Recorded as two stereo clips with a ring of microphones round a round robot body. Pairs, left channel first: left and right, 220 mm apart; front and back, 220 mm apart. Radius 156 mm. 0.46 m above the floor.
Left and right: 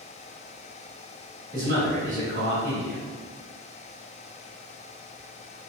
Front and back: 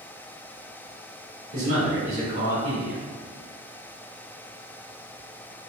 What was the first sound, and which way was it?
A man speaking, 130° right.